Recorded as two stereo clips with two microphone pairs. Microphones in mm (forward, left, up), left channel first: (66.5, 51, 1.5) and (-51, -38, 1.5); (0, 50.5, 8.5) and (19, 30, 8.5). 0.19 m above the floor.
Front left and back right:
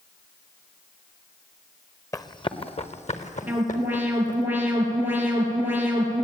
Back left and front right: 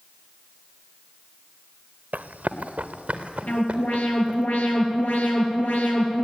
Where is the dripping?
No dripping in this recording.